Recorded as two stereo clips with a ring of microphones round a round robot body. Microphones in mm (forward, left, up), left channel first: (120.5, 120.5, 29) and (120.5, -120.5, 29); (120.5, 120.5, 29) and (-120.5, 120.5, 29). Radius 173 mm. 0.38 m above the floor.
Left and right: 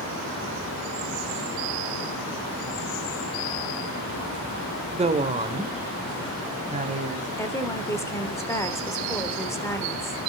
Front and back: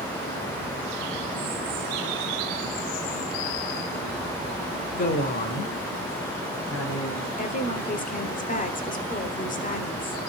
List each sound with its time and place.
4.9 s a woman speaking: 40° right, 1.3 m; by 7.3 s 35° right, 3 m
7.4 s a woman speaking: 20° left, 1.3 m